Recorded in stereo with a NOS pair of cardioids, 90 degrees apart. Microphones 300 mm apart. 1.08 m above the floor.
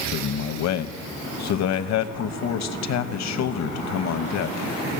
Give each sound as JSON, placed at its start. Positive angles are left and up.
{"t": 0.1, "sound": "a man speaking", "azimuth_deg": 65, "distance_m": 0.9}